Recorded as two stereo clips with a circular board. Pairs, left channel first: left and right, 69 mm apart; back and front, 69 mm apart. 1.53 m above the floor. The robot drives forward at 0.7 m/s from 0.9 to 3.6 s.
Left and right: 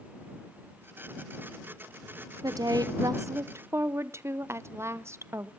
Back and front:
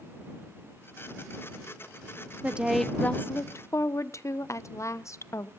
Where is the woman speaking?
65° right, 0.6 m; by 5.5 s 140° right, 0.8 m.